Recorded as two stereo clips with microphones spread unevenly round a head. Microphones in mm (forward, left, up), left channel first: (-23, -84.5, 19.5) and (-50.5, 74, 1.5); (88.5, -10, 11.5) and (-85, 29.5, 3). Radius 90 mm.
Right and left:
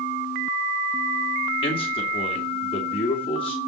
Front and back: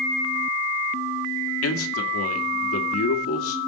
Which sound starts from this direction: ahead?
A man speaking, at 1.6 s.